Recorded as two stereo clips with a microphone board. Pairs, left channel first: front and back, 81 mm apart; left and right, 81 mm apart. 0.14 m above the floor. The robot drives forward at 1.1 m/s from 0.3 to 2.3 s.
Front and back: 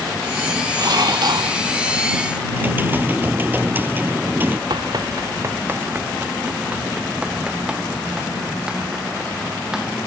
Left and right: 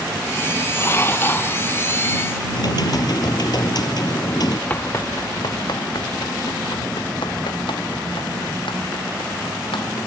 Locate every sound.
0.8 s dishes clattering: 145° left; by 1.6 s 155° left
2.5 s typing on a keyboard: 115° left
4.7 s running footsteps: 160° left; by 10.0 s 95° left